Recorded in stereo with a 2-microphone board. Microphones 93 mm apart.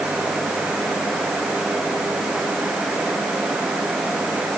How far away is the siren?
No siren in this recording.